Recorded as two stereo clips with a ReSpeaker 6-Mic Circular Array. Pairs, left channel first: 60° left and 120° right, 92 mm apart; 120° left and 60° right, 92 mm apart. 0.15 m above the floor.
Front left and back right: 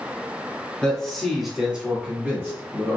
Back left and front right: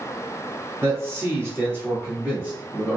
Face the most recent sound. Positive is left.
turn(degrees=-130)